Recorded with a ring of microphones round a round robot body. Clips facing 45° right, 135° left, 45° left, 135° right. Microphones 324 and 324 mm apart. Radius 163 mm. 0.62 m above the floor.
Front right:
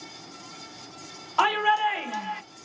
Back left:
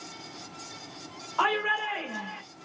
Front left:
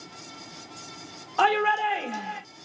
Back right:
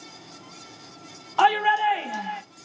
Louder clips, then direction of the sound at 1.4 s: Front right 3 dB, even; 65° right.